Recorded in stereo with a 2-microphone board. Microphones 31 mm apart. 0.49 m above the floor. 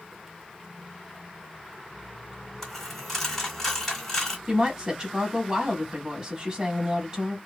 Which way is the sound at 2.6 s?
15° left (ahead or behind).